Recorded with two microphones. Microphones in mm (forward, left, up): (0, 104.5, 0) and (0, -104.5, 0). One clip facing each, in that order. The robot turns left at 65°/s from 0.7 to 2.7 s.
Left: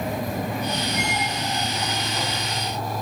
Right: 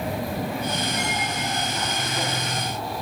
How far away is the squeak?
About 5 m.